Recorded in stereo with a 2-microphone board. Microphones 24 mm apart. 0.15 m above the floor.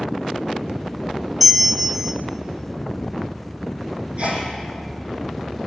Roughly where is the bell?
Centre.